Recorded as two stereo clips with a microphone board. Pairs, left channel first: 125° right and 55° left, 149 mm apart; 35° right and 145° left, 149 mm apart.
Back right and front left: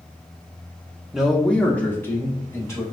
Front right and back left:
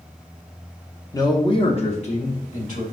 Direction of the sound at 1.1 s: 25° right.